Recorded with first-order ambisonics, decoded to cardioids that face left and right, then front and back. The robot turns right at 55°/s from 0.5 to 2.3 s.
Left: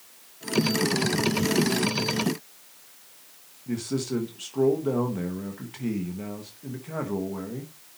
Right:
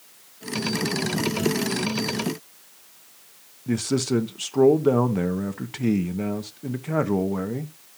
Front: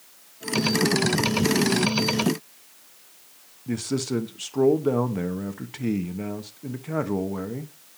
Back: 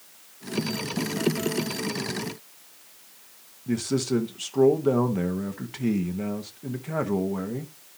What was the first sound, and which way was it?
A man speaking, 85° right.